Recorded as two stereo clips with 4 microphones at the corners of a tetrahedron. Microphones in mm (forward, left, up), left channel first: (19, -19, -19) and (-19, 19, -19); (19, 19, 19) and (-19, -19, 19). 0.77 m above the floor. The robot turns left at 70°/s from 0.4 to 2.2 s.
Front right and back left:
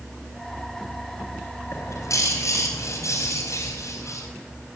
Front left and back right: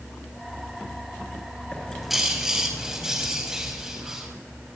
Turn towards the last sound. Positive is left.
turn(degrees=-55)